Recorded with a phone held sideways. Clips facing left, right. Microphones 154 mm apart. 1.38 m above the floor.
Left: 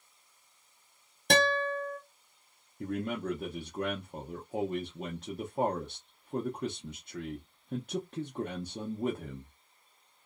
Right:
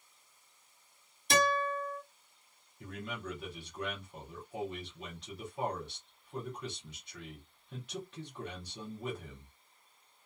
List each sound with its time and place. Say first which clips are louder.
1.3 s a guitar: left 3 dB; 65° left (ahead or behind), 1.1 m
2.8 s a man speaking: left 9 dB; 45° left (ahead or behind), 0.6 m